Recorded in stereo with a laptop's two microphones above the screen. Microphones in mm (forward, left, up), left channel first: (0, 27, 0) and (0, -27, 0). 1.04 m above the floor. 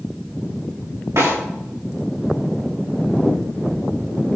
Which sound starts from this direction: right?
A snare drum, at 1.2 s.